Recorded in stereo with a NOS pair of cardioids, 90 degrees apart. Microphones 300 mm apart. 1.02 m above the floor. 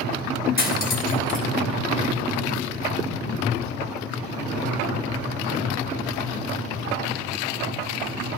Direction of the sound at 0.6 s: 30° left.